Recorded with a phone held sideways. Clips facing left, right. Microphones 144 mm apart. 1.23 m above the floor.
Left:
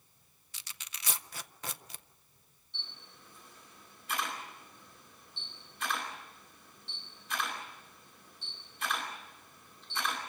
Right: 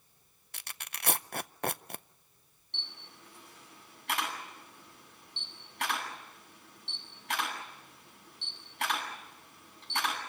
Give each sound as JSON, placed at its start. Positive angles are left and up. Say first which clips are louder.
{"t": 0.5, "sound": "tearing paper", "louder": "right 5 dB", "side_deg": -55, "distance_m": 0.5}
{"t": 2.7, "sound": "a camera shutter", "louder": "right 3 dB", "side_deg": -75, "distance_m": 9.0}